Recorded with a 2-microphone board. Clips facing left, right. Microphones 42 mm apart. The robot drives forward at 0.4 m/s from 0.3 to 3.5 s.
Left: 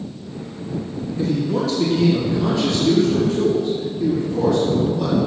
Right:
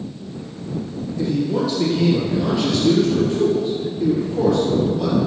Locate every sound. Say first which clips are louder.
1.2 s a man speaking: even; 10° right (ahead or behind), 3 m